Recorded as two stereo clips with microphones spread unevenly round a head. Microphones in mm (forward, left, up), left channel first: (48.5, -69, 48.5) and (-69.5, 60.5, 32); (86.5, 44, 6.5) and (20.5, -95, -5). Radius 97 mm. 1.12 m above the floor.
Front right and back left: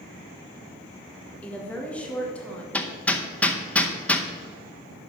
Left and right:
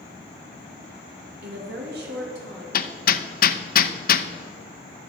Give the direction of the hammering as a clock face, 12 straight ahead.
11 o'clock.